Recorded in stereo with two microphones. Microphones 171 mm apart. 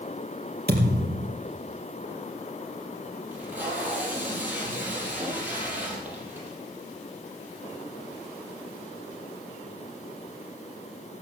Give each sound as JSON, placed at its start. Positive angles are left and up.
{"t": 0.7, "sound": "a thud", "side_deg": -80, "distance_m": 3.5}
{"t": 3.3, "sound": "tape being pulled", "side_deg": -10, "distance_m": 5.5}